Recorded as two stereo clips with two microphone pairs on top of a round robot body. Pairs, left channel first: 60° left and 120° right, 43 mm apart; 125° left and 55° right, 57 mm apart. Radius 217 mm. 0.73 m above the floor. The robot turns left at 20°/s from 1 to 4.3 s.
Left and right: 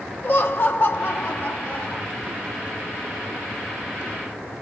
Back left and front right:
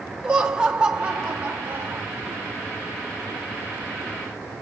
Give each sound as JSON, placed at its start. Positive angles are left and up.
{"t": 0.2, "sound": "laughter", "azimuth_deg": 10, "distance_m": 1.4}